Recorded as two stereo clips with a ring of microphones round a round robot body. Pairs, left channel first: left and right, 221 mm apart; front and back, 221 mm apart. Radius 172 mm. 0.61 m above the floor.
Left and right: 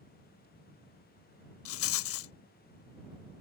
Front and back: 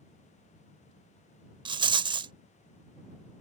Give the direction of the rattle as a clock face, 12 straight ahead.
8 o'clock.